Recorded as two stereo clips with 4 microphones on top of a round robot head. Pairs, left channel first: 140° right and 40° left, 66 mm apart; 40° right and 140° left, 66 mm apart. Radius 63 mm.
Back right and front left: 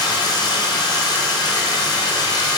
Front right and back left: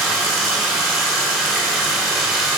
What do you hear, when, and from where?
0.0 s running water: 135° right, 1.4 m